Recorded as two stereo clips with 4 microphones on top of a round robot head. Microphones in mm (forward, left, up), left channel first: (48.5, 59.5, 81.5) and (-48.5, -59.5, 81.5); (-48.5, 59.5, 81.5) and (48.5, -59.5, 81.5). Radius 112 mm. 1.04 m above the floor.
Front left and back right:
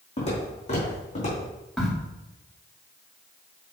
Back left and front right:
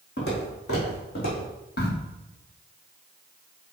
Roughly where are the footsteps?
Left.